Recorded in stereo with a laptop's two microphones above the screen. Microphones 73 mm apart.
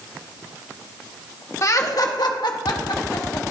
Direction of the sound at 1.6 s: 45° left (ahead or behind).